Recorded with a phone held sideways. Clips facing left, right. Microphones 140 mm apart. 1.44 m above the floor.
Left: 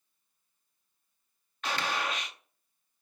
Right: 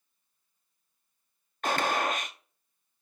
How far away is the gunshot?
About 0.8 m.